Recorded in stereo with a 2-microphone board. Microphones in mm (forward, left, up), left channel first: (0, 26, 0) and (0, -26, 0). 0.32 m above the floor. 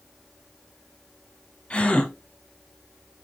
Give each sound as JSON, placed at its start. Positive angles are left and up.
{"t": 1.7, "sound": "a gasp", "side_deg": 25, "distance_m": 0.9}